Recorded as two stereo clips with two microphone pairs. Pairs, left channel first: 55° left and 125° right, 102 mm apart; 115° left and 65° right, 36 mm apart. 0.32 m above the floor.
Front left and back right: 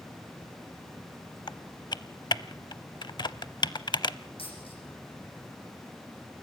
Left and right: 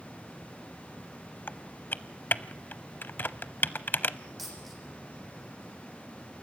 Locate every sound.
1.5 s typing on a keyboard: 95° left, 0.5 m
4.4 s a dropped coin: 30° left, 8.5 m